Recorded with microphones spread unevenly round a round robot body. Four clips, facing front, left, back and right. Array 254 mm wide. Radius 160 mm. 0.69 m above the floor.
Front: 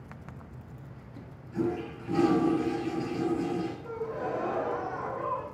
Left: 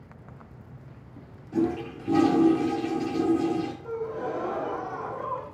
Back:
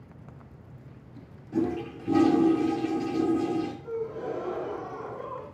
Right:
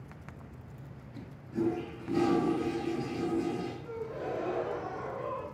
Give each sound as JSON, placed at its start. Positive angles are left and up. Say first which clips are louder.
{"t": 1.5, "sound": "a toilet flushing", "louder": "left 5 dB, back 3 dB", "azimuth_deg": 135, "distance_m": 2.0}
{"t": 3.8, "sound": "a gasp", "louder": "left 6 dB, back 1 dB", "azimuth_deg": 50, "distance_m": 4.5}